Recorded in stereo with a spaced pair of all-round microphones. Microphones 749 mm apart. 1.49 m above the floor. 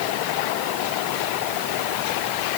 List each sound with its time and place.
Only background noise.